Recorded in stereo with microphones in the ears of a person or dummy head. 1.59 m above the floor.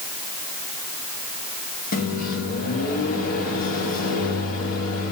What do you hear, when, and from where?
1.9 s a microwave: 45° left (ahead or behind), 2.5 m